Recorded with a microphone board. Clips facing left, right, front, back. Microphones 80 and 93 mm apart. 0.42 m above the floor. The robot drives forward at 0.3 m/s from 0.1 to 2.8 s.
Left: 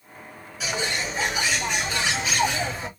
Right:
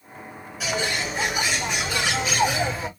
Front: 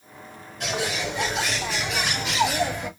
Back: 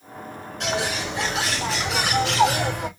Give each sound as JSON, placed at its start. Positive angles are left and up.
{"t": 0.6, "sound": "a bird", "azimuth_deg": -175, "distance_m": 4.5}